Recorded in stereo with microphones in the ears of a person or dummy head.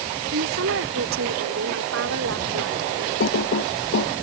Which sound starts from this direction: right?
A woman speaking, at 0.3 s.